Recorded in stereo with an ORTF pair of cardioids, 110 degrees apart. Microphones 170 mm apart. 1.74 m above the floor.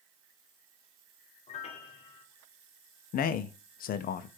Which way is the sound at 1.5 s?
40° left.